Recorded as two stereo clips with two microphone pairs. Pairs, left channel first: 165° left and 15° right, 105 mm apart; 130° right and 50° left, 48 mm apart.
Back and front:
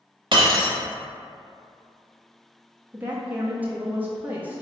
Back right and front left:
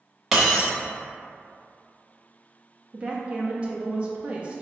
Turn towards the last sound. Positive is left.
turn(degrees=30)